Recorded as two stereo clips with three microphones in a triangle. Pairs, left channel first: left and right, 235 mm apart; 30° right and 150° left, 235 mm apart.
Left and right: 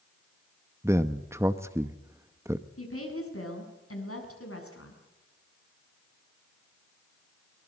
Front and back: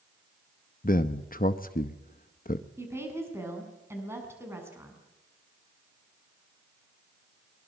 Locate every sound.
0.8 s a man speaking: 15° right, 0.8 m
2.8 s a woman speaking: 70° left, 7 m